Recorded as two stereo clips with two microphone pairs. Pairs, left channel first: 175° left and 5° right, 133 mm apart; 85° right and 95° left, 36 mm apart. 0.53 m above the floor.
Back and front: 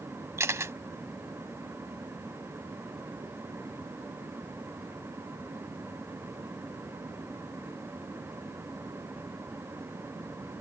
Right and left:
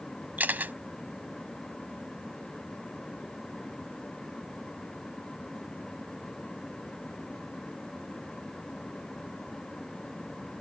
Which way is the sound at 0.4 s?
65° left.